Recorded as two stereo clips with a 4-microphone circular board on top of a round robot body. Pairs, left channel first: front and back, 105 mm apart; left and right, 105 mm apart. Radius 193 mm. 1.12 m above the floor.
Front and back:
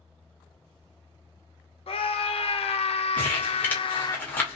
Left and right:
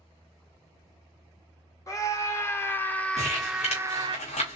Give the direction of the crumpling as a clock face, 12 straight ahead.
10 o'clock.